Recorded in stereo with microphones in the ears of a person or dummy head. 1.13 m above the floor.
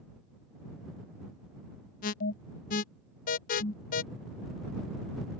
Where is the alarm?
45° left (ahead or behind).